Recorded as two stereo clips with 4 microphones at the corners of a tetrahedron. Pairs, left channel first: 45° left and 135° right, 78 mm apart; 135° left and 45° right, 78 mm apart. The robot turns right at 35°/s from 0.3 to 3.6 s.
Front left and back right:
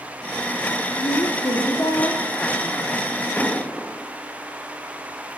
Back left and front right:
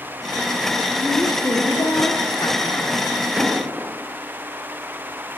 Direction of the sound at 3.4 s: 5° right.